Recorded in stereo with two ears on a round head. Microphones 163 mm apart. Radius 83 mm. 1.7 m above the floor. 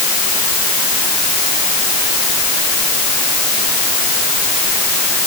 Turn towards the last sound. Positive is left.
No sound to turn to.